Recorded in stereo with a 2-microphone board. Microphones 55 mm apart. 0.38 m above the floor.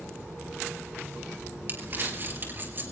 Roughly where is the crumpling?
Right.